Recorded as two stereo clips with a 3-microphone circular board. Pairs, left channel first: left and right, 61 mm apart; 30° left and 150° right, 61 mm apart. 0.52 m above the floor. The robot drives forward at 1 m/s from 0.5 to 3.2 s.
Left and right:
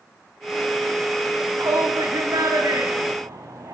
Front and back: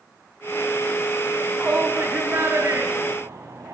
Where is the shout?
80° right, 3.5 m; by 3.8 s 110° right, 3.5 m.